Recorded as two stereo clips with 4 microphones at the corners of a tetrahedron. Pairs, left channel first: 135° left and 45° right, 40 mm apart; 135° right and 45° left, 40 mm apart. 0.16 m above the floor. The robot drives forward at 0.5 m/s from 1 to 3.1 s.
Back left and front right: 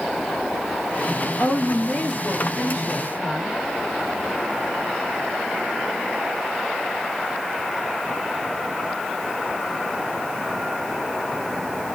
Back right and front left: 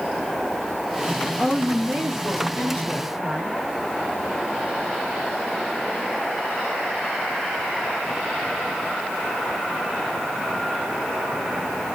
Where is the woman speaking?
125° left, 1.8 m; by 3.6 s 145° left, 2.5 m.